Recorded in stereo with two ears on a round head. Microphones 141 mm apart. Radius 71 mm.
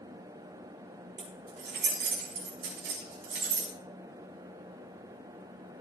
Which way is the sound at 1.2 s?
65° right (ahead or behind).